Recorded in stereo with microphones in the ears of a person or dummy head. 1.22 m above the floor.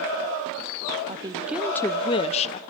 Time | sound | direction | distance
1.1 | a woman speaking | 25° right (ahead or behind) | 0.6 m